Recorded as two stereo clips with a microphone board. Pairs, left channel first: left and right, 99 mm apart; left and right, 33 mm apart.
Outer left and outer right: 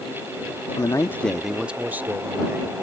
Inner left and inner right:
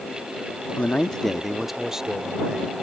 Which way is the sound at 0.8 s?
45° left (ahead or behind).